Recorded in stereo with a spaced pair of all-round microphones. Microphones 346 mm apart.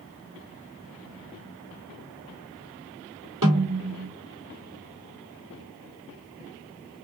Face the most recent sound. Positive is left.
turn(degrees=-65)  # may be behind; listen again after turning